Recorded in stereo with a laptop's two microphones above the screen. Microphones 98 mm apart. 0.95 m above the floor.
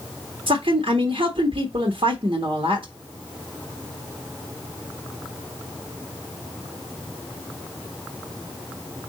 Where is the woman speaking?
65° right (ahead or behind), 1.3 m.